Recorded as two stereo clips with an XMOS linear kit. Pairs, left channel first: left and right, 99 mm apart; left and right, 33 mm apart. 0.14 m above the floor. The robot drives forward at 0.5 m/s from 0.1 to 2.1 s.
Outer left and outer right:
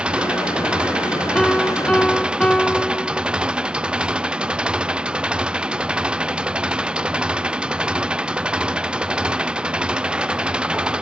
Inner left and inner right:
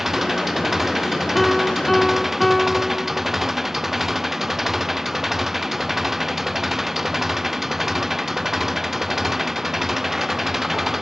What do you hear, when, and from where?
0.0 s an engine running: 10° right (ahead or behind)
1.4 s a piano: 10° left (ahead or behind)